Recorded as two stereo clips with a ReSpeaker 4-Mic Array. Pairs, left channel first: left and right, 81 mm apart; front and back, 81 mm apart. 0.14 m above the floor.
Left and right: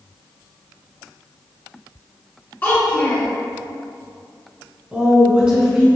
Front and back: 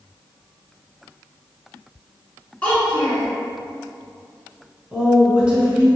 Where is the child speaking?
55° left, 1.2 m.